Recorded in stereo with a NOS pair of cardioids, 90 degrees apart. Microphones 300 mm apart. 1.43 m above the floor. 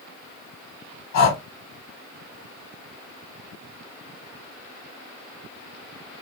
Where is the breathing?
65° left, 1.3 m.